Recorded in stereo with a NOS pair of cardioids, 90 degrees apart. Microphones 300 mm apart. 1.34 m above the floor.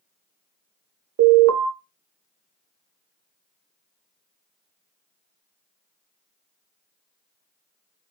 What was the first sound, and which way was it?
An alarm, 65° right.